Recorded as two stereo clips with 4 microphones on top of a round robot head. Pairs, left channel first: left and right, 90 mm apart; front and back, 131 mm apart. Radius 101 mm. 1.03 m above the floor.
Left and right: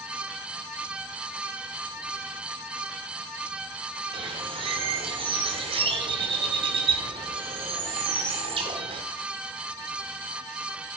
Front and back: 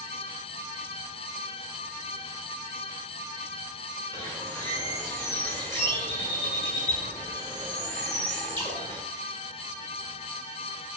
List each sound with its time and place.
4.1 s a bird: 75° right, 1.6 m